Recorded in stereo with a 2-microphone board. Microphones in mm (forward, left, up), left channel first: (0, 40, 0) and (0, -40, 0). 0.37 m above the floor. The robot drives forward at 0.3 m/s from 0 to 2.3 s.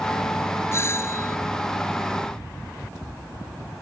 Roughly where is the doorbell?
Left.